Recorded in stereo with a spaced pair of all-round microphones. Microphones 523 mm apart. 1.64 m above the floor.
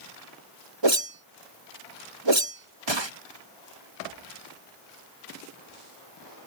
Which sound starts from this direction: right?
A whoosh, at 0.8 s.